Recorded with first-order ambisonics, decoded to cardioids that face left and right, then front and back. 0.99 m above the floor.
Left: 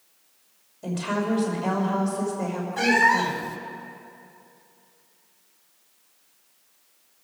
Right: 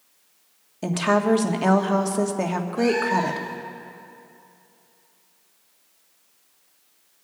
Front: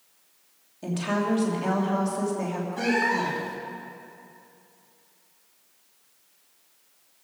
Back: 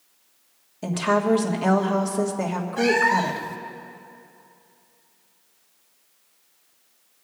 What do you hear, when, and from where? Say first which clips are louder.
0.8 s a woman speaking: right 7 dB, back 6 dB; 110° right, 1.4 m
2.8 s a cat meowing: left 3 dB, back 5 dB; 110° left, 1.2 m